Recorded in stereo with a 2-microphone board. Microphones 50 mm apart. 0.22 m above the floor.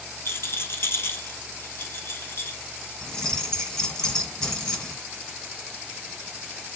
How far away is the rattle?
About 1.2 m.